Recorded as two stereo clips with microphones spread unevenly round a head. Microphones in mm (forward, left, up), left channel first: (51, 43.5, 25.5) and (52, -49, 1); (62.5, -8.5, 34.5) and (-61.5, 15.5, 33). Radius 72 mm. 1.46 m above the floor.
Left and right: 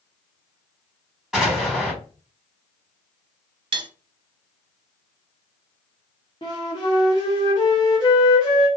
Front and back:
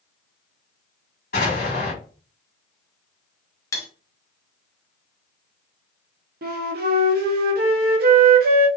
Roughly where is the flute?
Behind left.